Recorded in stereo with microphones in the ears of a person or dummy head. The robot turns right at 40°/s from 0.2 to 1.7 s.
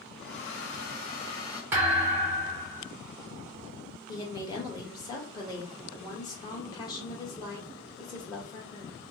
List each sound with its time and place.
0.2 s a hair dryer: 105° left, 0.8 m; by 1.6 s 160° left, 0.8 m
1.7 s a thud: 15° right (ahead or behind), 0.9 m
4.1 s a woman speaking: 20° left (ahead or behind), 1.4 m